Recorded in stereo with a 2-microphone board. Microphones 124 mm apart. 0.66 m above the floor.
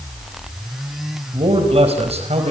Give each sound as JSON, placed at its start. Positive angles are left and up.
{"t": 1.3, "sound": "a man speaking", "side_deg": -50, "distance_m": 3.5}